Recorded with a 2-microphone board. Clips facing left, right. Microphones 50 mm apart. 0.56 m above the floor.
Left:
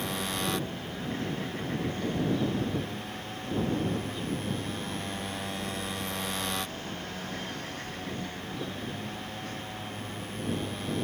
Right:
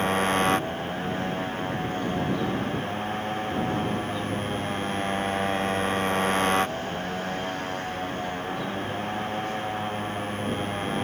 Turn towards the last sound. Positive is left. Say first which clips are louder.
# right 10 dB
turn(degrees=-45)  # may be behind; listen again after turning